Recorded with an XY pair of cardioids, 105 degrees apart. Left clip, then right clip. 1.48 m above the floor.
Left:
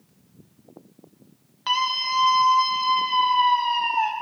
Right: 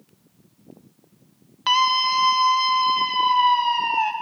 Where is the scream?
35° right, 0.9 m; by 4.1 s 25° right, 2.5 m.